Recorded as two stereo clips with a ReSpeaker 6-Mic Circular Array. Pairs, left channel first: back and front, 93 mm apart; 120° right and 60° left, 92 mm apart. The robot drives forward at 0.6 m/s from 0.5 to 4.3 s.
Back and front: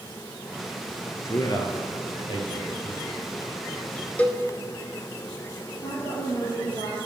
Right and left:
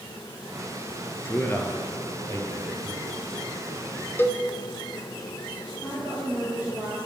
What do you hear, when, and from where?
1.2 s a man speaking: 170° right, 1.2 m; by 3.0 s 175° right, 2.0 m
4.2 s a cowbell: 135° right, 0.6 m; by 4.4 s 145° right, 0.7 m
5.8 s a woman speaking: 160° left, 3 m